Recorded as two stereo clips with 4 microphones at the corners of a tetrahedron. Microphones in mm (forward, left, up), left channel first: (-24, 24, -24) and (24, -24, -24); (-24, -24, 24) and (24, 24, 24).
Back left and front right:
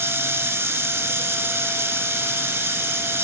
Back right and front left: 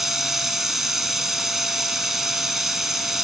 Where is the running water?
35° right, 0.7 m.